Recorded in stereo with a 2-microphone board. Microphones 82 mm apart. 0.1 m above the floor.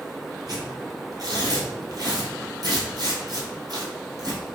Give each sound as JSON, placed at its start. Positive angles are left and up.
{"t": 0.5, "sound": "tearing paper", "side_deg": -55, "distance_m": 1.6}